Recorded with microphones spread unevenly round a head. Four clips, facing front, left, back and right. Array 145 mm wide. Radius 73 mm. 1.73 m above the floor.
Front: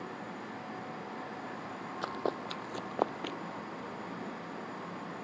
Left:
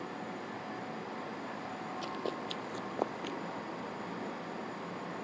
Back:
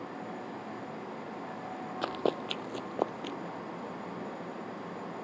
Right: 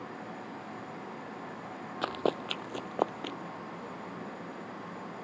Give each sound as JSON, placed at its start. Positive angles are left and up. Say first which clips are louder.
{"t": 2.0, "sound": "running footsteps", "louder": "right 9 dB, back 4 dB", "azimuth_deg": -105}